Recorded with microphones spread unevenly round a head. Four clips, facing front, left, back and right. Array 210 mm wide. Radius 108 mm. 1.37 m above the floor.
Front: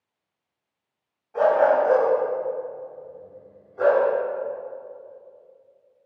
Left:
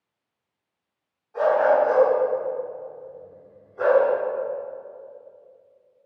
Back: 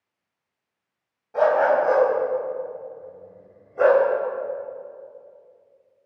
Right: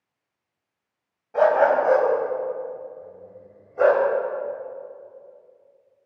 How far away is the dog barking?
About 3.5 m.